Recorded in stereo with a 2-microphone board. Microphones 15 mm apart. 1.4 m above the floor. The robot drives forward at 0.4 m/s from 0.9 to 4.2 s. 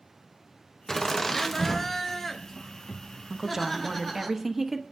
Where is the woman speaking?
35° right (ahead or behind), 0.7 m; by 4.8 s 20° right (ahead or behind), 1.0 m.